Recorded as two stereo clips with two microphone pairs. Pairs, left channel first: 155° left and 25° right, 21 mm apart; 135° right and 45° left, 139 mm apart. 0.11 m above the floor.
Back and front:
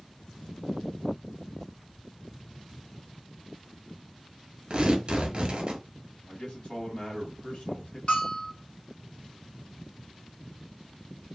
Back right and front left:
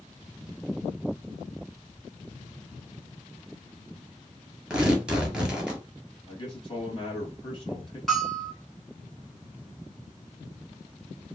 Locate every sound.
4.7 s tearing paper: 35° right, 1.0 m
6.3 s a man speaking: 175° right, 2.0 m
8.1 s a bell: 140° left, 1.0 m